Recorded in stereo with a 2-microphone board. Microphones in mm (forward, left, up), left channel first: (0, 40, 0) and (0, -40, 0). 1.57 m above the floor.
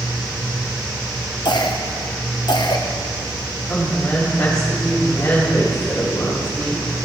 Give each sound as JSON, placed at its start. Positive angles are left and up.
{"t": 1.4, "sound": "a cough", "side_deg": 60, "distance_m": 0.9}
{"t": 3.7, "sound": "a woman speaking", "side_deg": 30, "distance_m": 3.5}